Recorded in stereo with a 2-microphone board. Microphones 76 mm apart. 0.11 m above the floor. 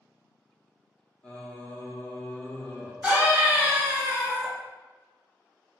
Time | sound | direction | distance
1.2 | singing | 20° left (ahead or behind) | 0.6 m
3.0 | a scream | 20° right (ahead or behind) | 1.2 m